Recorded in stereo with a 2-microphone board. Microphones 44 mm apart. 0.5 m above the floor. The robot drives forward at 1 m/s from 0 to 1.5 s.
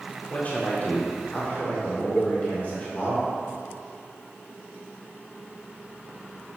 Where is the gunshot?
I don't hear a gunshot.